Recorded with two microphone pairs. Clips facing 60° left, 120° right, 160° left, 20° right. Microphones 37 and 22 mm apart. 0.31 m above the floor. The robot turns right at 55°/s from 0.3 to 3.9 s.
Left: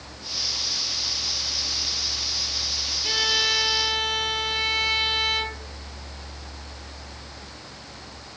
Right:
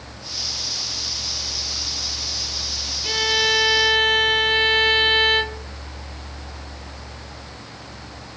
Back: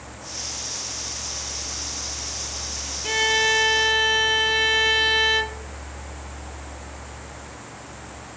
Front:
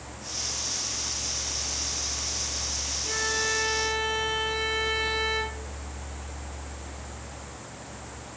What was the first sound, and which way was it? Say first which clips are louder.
A violin: right 4 dB, back 9 dB; 160° left.